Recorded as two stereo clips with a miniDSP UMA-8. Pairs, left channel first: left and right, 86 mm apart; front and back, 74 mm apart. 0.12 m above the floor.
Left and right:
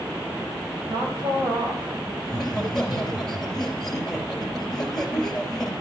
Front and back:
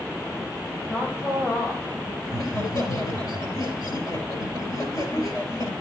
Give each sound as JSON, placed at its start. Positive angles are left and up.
{"t": 0.9, "sound": "a woman speaking", "azimuth_deg": -65, "distance_m": 4.0}
{"t": 2.2, "sound": "laughter", "azimuth_deg": 5, "distance_m": 2.5}